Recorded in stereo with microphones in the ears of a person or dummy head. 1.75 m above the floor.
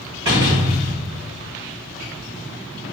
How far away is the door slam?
About 0.8 m.